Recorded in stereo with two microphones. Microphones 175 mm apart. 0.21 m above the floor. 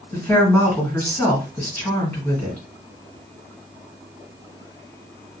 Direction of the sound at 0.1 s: 10° left (ahead or behind).